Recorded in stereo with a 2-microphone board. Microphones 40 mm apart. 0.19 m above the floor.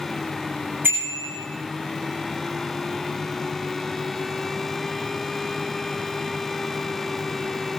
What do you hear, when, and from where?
0.8 s a bicycle bell: 65° right (ahead or behind), 9.5 m